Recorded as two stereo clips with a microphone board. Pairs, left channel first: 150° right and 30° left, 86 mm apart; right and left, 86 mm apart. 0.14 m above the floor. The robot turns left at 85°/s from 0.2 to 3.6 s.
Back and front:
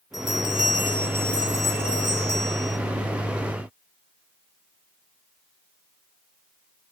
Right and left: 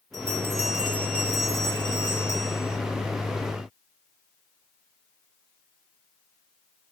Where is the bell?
55° left, 2.5 m; by 2.8 s 165° right, 2.5 m.